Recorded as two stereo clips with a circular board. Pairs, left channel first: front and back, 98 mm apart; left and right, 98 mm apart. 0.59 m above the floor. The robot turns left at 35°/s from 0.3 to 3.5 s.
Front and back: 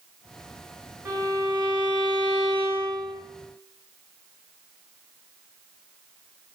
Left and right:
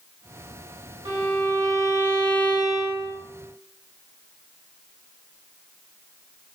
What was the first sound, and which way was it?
A violin, 120° right.